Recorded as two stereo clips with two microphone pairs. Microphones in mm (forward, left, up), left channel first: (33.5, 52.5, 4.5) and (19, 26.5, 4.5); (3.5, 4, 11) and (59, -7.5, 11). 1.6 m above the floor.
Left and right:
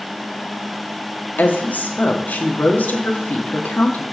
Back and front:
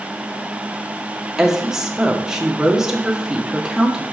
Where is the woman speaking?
65° left, 1.2 m.